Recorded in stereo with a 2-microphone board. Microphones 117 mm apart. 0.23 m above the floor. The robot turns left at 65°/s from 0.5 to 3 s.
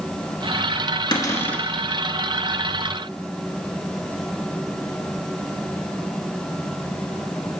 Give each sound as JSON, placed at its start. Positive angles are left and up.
{"t": 1.1, "sound": "a cupboard door", "azimuth_deg": 40, "distance_m": 1.0}